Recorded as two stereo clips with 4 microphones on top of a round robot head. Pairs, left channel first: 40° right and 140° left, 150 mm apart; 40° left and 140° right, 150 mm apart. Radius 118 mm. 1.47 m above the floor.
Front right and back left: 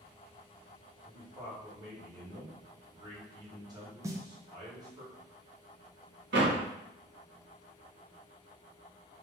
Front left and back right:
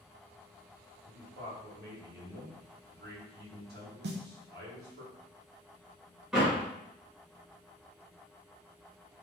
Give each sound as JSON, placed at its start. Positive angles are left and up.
{"t": 1.1, "sound": "a man speaking", "azimuth_deg": -155, "distance_m": 1.9}
{"t": 4.0, "sound": "a snare drum", "azimuth_deg": -145, "distance_m": 0.7}
{"t": 6.3, "sound": "a door slam", "azimuth_deg": 130, "distance_m": 1.4}